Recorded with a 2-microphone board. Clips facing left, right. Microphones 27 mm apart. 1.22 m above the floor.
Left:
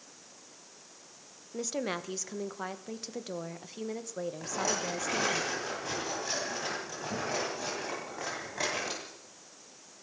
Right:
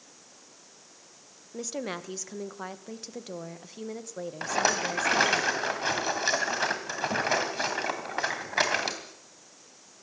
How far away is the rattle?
About 3 m.